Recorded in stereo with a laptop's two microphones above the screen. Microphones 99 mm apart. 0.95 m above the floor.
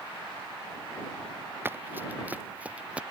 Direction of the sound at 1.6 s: 20° right (ahead or behind).